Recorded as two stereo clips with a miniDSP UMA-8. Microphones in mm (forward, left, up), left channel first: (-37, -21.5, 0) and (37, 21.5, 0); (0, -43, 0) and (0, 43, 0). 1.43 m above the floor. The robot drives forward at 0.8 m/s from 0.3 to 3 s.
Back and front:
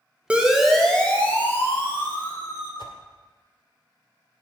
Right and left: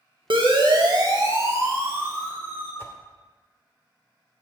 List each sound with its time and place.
0.3 s a siren: 105° left, 2 m; by 2.7 s 155° left, 5 m
2.8 s a whoosh: 145° right, 1.8 m